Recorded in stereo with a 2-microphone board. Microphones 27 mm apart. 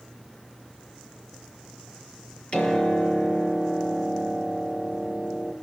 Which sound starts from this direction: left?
A piano, at 2.5 s.